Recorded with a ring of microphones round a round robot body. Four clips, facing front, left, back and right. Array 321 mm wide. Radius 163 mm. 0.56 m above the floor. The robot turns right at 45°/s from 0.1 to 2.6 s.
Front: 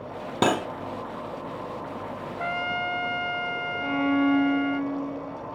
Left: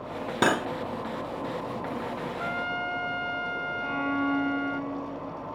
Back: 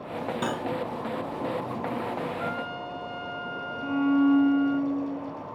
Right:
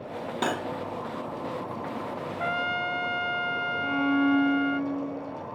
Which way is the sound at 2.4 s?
40° right.